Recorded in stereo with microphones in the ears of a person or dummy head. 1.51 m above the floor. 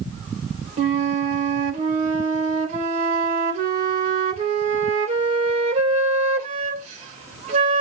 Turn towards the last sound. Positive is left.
turn(degrees=-40)  # may be behind; listen again after turning